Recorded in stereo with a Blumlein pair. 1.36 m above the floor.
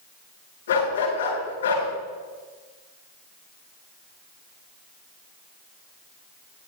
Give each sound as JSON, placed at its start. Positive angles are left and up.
{"t": 0.7, "sound": "a dog barking", "azimuth_deg": 65, "distance_m": 7.0}